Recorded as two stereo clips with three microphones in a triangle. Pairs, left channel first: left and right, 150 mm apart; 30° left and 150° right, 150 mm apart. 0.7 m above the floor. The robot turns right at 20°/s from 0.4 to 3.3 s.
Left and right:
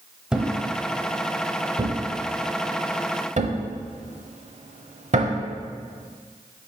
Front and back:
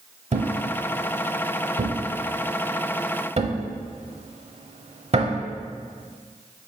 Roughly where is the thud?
Behind.